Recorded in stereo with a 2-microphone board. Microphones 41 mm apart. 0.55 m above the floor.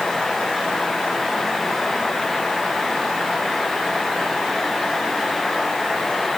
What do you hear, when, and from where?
Only background noise.